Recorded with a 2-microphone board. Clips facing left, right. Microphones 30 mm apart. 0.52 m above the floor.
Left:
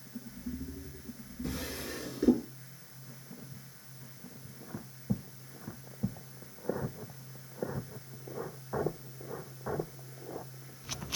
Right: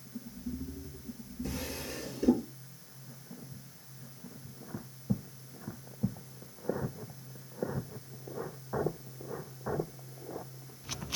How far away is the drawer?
About 5.5 m.